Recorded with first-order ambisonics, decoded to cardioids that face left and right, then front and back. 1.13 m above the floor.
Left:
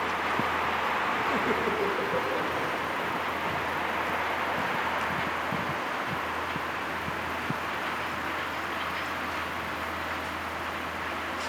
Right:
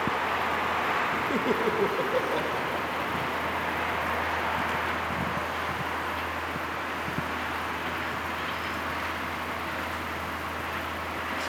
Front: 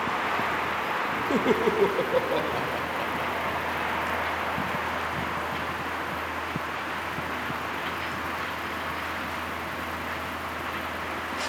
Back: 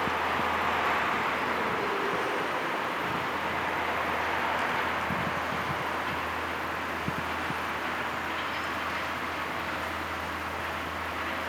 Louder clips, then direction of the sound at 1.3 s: Right 1 dB, front 5 dB; 10° right.